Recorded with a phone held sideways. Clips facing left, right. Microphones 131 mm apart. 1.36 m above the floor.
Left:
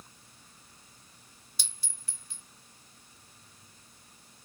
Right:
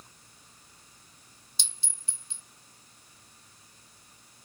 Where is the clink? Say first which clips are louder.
Right 2 dB; 25° right (ahead or behind), 0.7 m.